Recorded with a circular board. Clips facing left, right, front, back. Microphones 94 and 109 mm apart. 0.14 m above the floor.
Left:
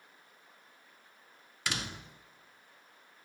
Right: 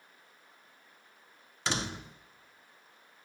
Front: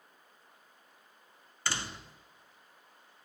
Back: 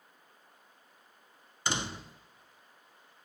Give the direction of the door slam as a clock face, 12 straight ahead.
4 o'clock.